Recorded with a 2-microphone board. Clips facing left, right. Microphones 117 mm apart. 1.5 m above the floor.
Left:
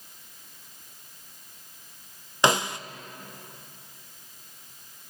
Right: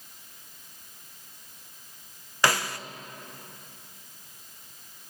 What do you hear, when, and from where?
2.4 s a snare drum: 20° left (ahead or behind), 0.5 m